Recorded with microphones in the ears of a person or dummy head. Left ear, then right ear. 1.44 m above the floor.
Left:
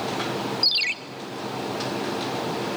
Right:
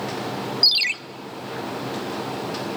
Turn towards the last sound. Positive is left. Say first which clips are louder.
# right 4 dB
turn(degrees=-15)  # may be behind; listen again after turning